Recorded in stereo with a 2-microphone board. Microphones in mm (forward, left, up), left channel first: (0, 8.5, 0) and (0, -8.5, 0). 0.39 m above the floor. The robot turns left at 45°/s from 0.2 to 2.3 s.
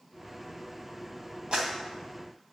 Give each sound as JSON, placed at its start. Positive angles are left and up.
{"t": 1.5, "sound": "a clap", "side_deg": -65, "distance_m": 2.5}